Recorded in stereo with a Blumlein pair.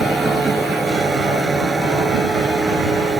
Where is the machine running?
10° right.